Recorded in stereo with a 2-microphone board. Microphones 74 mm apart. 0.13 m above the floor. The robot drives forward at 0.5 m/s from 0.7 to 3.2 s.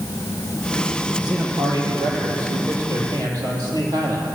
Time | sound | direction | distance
1.2 | a man speaking | 70° right (ahead or behind) | 4.5 m